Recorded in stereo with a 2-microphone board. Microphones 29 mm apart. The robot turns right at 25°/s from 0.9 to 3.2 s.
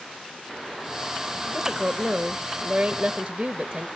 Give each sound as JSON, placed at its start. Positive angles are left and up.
{"t": 1.5, "sound": "a woman speaking", "side_deg": -20, "distance_m": 0.9}